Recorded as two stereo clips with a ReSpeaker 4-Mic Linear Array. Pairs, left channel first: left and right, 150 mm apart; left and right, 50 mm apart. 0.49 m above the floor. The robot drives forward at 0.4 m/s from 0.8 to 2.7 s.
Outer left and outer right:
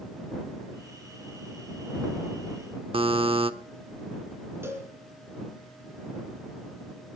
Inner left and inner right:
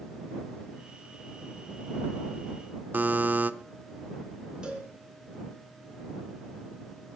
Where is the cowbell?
15° right (ahead or behind), 3.5 m.